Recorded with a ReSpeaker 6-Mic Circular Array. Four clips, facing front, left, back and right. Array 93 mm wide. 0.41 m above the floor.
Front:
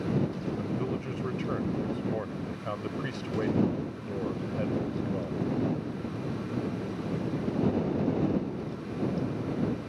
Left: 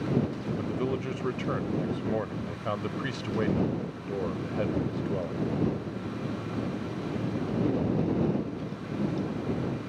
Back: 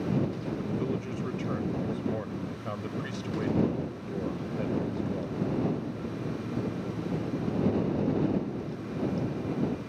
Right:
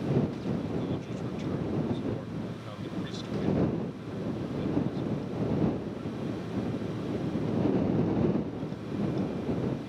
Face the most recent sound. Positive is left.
turn(degrees=80)